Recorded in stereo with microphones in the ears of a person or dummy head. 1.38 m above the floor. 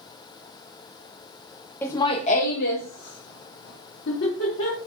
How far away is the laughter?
About 0.5 m.